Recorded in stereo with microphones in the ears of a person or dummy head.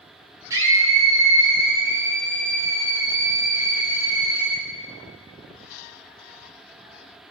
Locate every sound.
0.5 s a scream: 20° right (ahead or behind), 4 m